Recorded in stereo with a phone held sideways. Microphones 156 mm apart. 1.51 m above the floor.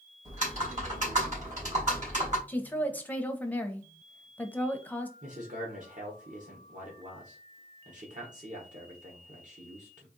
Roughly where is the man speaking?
Right.